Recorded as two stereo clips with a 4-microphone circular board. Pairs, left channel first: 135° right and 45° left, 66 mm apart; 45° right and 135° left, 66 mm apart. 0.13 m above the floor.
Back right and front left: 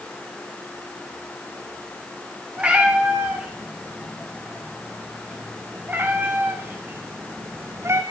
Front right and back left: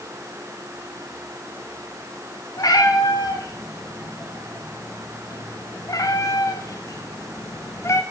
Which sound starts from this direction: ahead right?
A cat meowing, at 2.6 s.